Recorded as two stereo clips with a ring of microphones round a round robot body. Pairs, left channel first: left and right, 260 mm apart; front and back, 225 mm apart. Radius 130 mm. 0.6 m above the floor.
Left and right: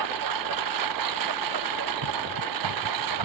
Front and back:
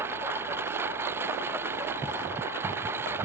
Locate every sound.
0.0 s a lawn mower: 100° right